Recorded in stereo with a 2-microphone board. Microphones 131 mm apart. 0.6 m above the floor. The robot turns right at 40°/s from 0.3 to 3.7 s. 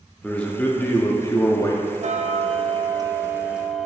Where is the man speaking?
5° left (ahead or behind), 0.6 m; by 1.9 s 25° left (ahead or behind), 0.6 m.